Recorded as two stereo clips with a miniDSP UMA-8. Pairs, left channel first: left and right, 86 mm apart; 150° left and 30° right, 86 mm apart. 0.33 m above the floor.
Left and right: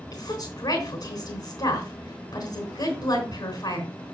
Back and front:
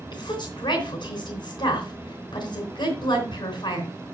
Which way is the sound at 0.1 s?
125° left.